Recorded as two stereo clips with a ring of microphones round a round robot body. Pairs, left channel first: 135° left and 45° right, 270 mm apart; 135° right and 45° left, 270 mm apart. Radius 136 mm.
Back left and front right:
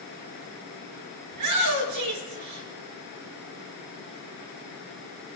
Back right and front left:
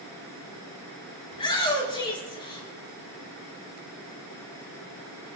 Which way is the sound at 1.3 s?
65° right.